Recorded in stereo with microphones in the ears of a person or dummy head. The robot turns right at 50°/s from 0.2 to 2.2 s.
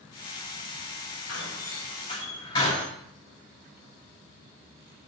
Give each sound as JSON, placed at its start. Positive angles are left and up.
{"t": 1.3, "sound": "a door slam", "side_deg": 70, "distance_m": 9.5}